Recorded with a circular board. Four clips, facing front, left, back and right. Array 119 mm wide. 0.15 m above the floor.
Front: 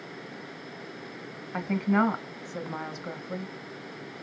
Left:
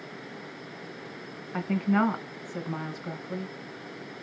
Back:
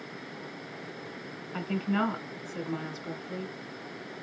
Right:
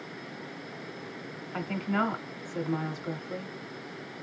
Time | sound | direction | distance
1.5 | a woman speaking | 25° left | 1.1 m